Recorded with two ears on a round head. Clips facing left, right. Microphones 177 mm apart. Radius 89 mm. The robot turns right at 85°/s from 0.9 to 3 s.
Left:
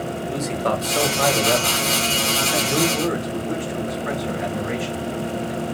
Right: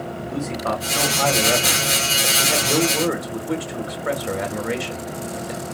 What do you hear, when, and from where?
0.3 s a man speaking: 135° left, 1.8 m; by 5.6 s 45° right, 1.8 m